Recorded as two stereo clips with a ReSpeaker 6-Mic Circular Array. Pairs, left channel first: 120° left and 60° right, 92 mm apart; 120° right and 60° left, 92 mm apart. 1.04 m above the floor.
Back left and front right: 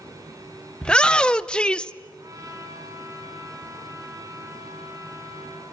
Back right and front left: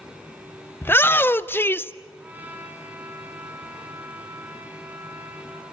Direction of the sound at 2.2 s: 10° right.